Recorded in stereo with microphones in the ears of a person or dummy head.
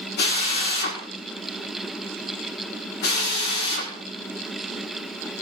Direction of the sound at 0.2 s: 50° left (ahead or behind).